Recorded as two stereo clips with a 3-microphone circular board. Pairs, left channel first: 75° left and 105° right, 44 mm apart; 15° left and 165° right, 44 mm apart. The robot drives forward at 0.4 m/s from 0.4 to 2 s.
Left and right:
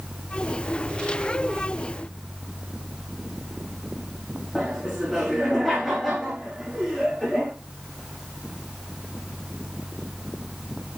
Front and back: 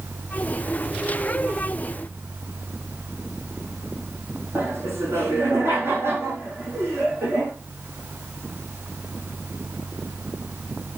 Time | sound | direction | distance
4.5 | laughter | 170° left | 7.5 m